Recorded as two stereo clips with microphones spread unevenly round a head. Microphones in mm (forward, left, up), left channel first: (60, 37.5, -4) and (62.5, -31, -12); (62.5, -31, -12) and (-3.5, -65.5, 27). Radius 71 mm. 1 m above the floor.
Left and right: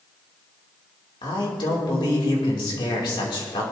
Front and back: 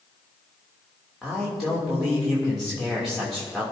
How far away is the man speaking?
About 3 m.